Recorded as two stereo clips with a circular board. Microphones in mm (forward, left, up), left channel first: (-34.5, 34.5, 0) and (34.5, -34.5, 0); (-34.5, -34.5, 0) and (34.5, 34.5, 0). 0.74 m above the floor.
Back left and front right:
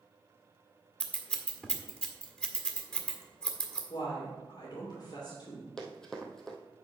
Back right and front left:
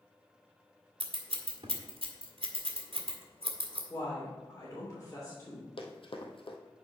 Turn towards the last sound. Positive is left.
turn(degrees=-145)